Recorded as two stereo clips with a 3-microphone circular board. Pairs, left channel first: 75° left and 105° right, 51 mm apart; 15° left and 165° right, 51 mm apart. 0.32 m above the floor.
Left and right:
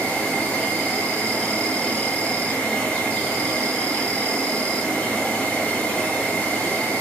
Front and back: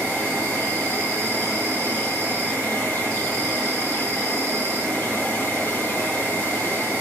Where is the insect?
35° left, 2 m.